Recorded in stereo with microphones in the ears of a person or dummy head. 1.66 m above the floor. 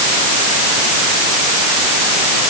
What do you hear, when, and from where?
Only background noise.